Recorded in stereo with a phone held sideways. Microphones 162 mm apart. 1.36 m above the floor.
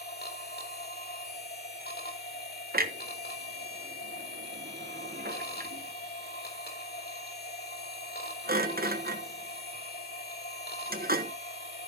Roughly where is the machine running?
Left.